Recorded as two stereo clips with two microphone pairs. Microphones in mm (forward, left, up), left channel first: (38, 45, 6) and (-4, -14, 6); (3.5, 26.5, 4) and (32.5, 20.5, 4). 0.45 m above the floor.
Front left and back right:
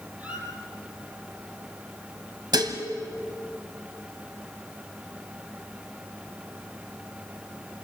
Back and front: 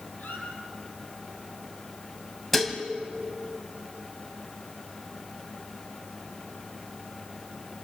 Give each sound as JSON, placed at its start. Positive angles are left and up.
{"t": 0.2, "sound": "a squeak", "azimuth_deg": 165, "distance_m": 4.5}
{"t": 2.5, "sound": "dishes clattering", "azimuth_deg": -110, "distance_m": 1.9}